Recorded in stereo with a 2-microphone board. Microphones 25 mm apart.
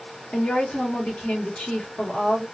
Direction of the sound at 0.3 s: 75° left (ahead or behind).